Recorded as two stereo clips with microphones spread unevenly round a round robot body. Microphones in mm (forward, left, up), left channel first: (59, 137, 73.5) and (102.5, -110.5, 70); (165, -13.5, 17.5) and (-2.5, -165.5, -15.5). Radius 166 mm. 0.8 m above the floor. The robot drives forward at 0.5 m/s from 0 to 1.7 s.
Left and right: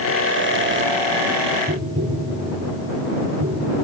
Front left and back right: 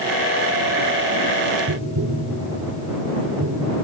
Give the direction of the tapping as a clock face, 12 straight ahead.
4 o'clock.